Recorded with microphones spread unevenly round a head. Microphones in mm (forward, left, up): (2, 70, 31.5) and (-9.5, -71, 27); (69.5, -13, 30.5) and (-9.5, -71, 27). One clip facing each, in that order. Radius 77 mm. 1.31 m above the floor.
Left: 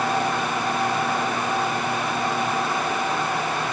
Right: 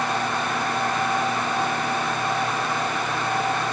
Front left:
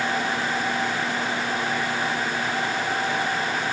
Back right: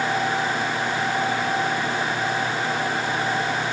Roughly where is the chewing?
I don't hear chewing.